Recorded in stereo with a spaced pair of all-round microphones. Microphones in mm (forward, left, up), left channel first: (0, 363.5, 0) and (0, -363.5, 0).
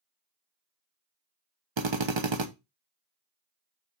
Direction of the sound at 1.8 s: 40° right (ahead or behind).